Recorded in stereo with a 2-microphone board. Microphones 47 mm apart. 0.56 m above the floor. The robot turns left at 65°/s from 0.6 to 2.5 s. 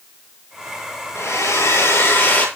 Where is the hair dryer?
115° left, 7.5 m; by 2.5 s 30° left, 7.5 m.